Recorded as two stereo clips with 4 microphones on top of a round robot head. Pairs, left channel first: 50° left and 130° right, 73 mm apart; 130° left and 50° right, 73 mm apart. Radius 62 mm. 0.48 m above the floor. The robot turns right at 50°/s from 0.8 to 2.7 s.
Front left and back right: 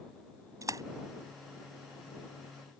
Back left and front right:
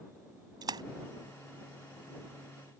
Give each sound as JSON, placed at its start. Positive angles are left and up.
{"t": 0.6, "sound": "a splash", "azimuth_deg": -80}